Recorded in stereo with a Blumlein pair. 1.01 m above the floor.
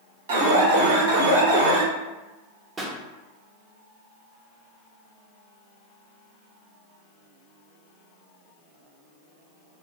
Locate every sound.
0.3 s an alarm: 55° right, 0.6 m
2.8 s a pop: 20° right, 0.5 m